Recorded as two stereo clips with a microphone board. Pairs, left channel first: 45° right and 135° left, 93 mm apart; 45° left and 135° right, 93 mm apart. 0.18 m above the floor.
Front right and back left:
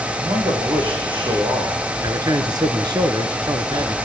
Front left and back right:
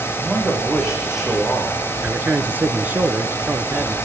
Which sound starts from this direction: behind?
A man speaking, at 2.0 s.